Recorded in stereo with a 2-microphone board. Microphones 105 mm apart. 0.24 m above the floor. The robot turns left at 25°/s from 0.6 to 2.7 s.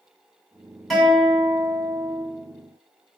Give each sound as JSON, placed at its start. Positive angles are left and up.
{"t": 0.9, "sound": "a guitar", "azimuth_deg": 0, "distance_m": 1.9}